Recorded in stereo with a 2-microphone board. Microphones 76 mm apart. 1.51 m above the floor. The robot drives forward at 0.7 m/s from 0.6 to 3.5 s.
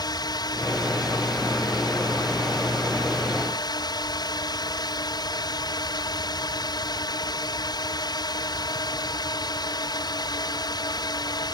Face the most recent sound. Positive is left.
turn(degrees=55)  # may be behind; listen again after turning